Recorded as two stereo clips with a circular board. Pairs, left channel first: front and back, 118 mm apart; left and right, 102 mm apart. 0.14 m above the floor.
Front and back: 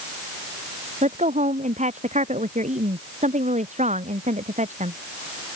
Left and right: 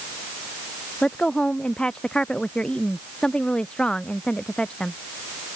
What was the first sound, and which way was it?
A woman speaking, 170° left.